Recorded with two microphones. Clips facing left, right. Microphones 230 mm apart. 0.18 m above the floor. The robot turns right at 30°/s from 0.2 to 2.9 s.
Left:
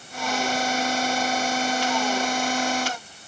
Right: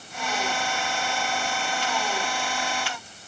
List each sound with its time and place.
Only background noise.